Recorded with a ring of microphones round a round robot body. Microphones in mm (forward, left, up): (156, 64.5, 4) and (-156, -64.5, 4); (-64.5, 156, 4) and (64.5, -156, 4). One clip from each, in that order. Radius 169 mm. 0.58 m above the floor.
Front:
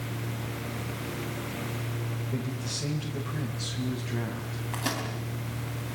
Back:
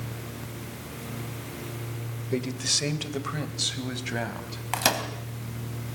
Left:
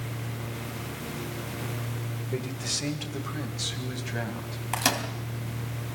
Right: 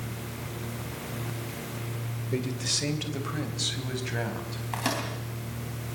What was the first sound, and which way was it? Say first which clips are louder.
A man speaking: back 11 dB, right 2 dB; 155° right.